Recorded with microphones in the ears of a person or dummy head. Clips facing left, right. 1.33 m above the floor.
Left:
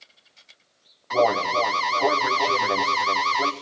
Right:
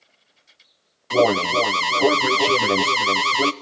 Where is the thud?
I don't hear a thud.